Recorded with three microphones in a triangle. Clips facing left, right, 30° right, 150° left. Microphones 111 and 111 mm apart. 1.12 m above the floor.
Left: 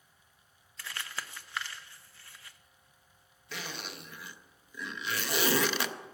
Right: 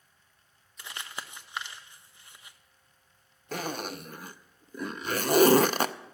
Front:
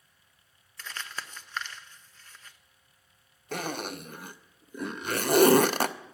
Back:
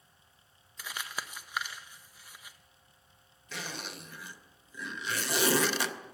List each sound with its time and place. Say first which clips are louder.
0.8 s crumpling: even, even; 140° right, 0.7 m
3.5 s a zipper: right 8 dB, front 8 dB; 55° right, 0.5 m